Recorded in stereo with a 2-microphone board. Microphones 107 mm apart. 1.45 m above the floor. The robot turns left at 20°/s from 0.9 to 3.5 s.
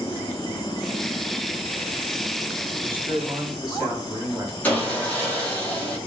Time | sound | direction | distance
2.8 | a man speaking | 55° right (ahead or behind) | 2.0 m
4.6 | sawing | 15° left (ahead or behind) | 1.3 m